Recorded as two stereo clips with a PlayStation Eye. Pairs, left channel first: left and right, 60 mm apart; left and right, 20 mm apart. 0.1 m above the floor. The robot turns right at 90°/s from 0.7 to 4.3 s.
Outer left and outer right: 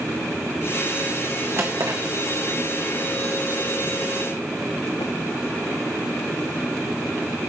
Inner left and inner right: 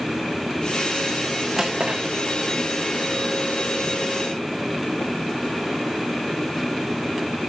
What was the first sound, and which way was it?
A drawer, 40° right (ahead or behind).